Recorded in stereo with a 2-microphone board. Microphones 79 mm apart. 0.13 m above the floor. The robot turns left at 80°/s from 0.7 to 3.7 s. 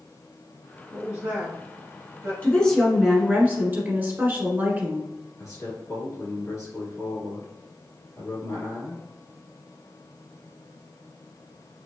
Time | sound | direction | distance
0.9 | a woman speaking | 10° right (ahead or behind) | 1.9 m
2.4 | a woman speaking | 40° left | 1.3 m
5.4 | a man speaking | 50° left (ahead or behind) | 2.0 m